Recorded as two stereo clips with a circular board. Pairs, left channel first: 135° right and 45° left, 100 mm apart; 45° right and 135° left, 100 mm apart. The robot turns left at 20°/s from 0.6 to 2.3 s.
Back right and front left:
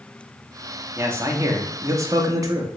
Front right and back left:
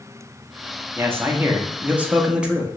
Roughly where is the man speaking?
Left.